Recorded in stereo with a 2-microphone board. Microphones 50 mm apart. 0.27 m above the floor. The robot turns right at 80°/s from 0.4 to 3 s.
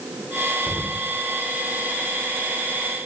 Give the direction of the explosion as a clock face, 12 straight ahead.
12 o'clock.